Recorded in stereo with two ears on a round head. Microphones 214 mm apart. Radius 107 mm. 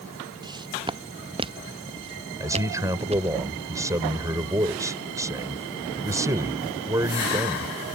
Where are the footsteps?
20° right (ahead or behind); by 3.3 s 30° right (ahead or behind).